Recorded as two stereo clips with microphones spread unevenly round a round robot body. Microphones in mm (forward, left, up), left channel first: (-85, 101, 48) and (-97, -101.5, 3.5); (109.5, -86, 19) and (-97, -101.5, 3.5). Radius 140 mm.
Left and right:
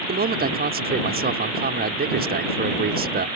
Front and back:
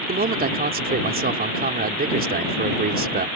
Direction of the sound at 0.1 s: 130° right.